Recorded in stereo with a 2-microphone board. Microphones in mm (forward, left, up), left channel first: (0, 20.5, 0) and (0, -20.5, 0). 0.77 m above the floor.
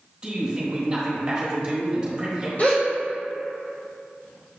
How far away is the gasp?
About 1.4 m.